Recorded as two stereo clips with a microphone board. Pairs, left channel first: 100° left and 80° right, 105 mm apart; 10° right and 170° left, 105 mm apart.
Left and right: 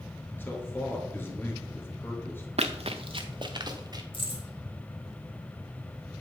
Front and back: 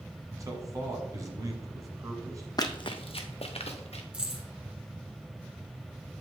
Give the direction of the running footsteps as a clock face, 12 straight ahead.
2 o'clock.